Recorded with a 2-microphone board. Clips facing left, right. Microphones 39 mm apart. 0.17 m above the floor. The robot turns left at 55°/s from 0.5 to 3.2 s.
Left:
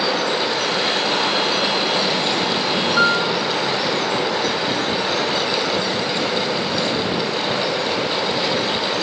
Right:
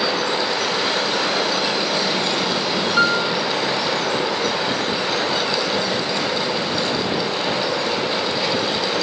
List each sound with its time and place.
3.0 s a piano: 5° right (ahead or behind), 1.5 m; by 3.2 s centre (ahead or behind), 1.5 m